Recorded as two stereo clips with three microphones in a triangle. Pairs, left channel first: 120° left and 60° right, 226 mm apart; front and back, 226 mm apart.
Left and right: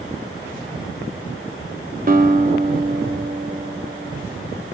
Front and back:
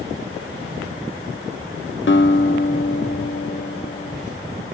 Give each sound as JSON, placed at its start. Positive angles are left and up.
{"t": 2.1, "sound": "a guitar", "azimuth_deg": -20, "distance_m": 0.7}